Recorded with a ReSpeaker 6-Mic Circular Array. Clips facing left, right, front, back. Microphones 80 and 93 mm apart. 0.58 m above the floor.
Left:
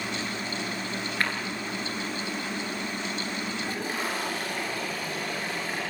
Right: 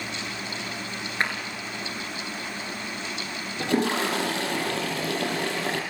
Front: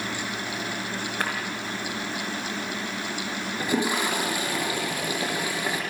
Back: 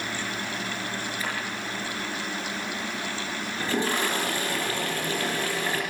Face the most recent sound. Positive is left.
turn(degrees=-75)